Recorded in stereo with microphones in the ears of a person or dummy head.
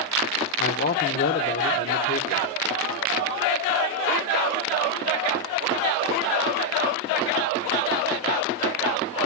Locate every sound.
0.6 s a man speaking: 45° left (ahead or behind), 1.2 m